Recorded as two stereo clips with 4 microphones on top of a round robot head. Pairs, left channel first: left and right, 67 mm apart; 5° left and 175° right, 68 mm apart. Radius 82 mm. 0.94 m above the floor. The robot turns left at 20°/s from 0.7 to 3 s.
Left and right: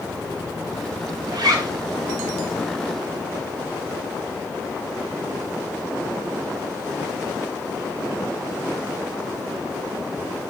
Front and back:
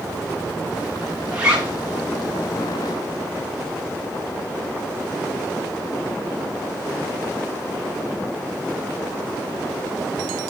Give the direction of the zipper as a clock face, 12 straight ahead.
3 o'clock.